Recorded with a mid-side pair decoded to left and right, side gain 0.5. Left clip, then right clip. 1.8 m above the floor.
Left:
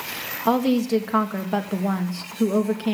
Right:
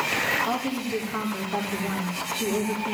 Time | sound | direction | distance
0.5 | a woman speaking | 60° left | 2 m